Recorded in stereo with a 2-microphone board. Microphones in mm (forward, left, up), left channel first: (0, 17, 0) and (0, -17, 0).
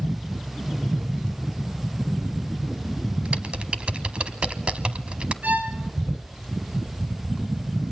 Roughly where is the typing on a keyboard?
Right.